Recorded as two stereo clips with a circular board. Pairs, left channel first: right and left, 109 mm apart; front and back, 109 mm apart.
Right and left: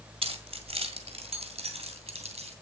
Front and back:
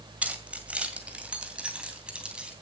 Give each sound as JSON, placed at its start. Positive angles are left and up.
{"t": 0.2, "sound": "keys jangling", "azimuth_deg": 105, "distance_m": 1.8}